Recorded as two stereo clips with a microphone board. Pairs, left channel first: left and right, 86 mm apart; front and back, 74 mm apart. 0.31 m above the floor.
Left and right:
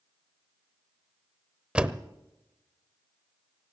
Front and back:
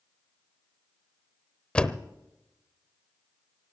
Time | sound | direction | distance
1.8 | a door slam | 40° right | 0.7 m